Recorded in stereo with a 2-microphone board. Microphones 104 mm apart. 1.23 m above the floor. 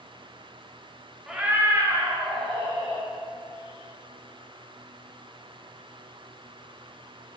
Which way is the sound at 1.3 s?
5° right (ahead or behind).